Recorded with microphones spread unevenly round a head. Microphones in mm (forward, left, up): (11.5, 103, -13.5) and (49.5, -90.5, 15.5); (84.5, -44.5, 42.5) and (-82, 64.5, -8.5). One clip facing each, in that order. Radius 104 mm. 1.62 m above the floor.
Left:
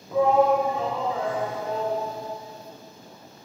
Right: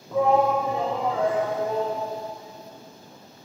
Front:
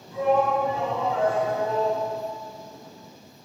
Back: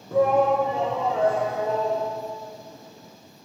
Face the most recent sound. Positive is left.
turn(degrees=-115)